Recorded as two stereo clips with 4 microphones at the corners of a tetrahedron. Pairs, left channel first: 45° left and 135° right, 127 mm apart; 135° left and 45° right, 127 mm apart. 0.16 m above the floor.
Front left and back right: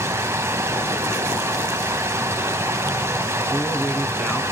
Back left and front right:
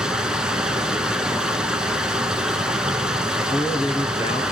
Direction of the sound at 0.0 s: 115° right.